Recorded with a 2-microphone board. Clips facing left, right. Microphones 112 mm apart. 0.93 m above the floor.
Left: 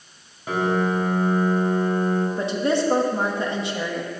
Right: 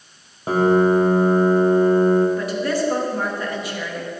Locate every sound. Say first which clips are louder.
0.5 s a piano: right 7 dB; 35° right (ahead or behind), 1.0 m
2.4 s a woman speaking: even; 25° left (ahead or behind), 1.0 m